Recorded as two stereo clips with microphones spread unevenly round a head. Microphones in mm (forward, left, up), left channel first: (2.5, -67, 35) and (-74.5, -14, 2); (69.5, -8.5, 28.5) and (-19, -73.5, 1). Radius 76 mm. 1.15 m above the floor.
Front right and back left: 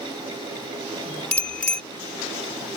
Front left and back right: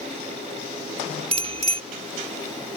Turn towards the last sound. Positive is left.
turn(degrees=-105)